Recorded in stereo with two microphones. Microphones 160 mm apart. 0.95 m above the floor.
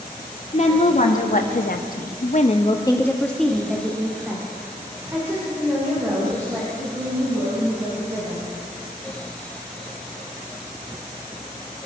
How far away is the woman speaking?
About 2.5 m.